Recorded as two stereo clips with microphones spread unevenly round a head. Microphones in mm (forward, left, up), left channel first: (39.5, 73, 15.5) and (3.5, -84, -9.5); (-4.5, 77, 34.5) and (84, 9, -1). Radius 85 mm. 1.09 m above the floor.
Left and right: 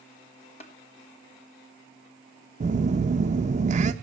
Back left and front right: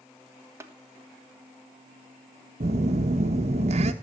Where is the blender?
I don't hear a blender.